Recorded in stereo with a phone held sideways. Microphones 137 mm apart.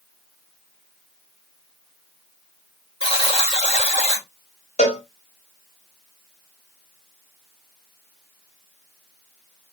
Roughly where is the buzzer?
Left.